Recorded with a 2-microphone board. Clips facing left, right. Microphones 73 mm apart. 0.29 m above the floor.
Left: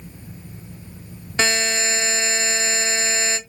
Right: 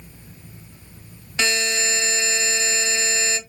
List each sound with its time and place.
1.4 s a buzzer: 30° left (ahead or behind), 0.8 m